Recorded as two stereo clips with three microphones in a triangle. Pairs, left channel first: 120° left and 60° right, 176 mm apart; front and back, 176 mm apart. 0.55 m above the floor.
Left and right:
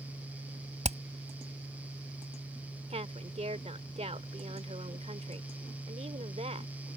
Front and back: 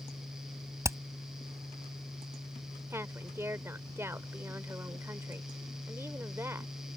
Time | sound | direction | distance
0.8 | hammering | 105° right | ?
2.9 | a woman speaking | 105° right | ?